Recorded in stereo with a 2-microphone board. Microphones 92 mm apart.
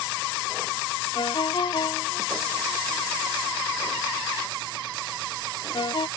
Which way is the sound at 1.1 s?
60° left (ahead or behind).